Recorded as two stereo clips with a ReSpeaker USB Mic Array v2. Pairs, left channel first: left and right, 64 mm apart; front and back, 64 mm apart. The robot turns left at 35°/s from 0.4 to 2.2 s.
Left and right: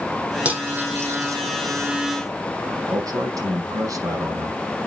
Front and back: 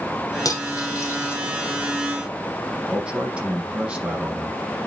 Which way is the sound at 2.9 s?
105° right.